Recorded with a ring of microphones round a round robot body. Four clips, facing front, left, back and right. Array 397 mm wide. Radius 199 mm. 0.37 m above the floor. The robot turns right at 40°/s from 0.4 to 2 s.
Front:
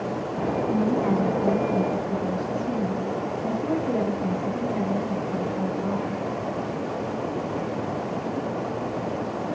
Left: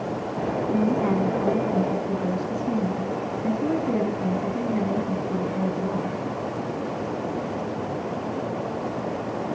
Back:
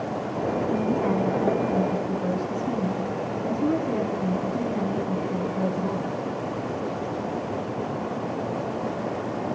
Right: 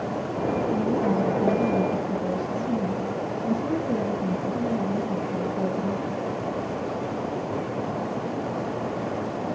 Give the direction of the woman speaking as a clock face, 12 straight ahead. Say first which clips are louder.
Left 4 dB, front 2 dB; 10 o'clock.